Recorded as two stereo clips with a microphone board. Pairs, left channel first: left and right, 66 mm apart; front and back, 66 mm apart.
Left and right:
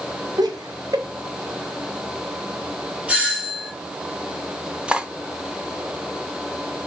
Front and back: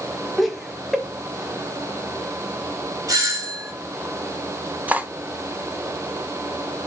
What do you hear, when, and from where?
0.4 s laughter: 90° right, 1.7 m
3.1 s a doorbell: 160° right, 3 m
4.9 s cutlery clinking: 145° right, 0.8 m